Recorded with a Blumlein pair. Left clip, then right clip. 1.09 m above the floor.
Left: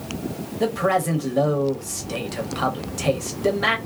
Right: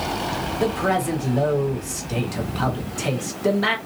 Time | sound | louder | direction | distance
0.6 | a man speaking | left 2 dB | 5° left | 0.9 m